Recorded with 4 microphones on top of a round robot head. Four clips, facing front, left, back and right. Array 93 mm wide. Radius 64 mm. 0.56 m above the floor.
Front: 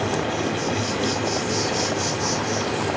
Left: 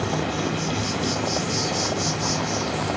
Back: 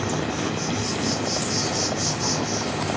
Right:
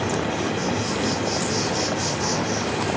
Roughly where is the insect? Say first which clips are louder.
Right 1 dB, front 2 dB; ahead right.